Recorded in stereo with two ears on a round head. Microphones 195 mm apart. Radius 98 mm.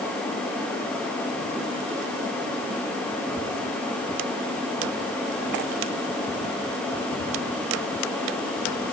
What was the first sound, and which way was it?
Only background noise.